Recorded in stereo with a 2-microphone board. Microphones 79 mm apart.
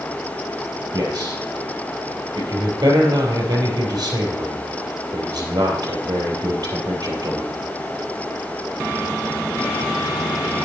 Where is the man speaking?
55° right (ahead or behind), 3.5 m.